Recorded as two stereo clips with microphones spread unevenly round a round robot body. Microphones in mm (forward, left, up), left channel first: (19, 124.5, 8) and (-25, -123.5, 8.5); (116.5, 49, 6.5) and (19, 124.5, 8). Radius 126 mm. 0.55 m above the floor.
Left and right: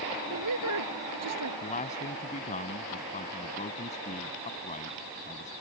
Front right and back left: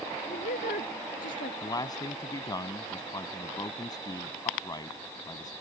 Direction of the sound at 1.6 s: 20° left.